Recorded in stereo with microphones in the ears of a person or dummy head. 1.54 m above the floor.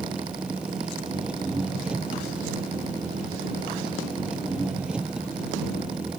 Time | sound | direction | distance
0.0 | an engine running | 5° right (ahead or behind) | ?